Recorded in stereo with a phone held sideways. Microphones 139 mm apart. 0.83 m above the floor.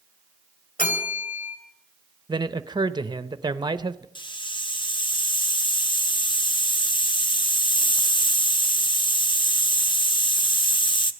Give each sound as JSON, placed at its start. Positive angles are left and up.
{"t": 0.8, "sound": "a bell", "side_deg": 75, "distance_m": 3.0}
{"t": 2.3, "sound": "a man speaking", "side_deg": -30, "distance_m": 0.7}
{"t": 4.2, "sound": "a hiss", "side_deg": 35, "distance_m": 0.8}